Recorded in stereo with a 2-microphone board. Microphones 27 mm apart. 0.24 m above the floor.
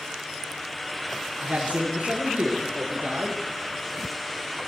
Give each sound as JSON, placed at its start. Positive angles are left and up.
{"t": 1.4, "sound": "a man speaking", "side_deg": -60, "distance_m": 3.5}